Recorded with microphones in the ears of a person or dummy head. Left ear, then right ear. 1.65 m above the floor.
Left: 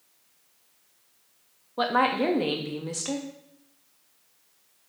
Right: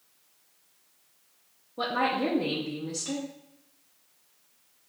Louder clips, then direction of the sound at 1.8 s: Left 4 dB; 25° left (ahead or behind).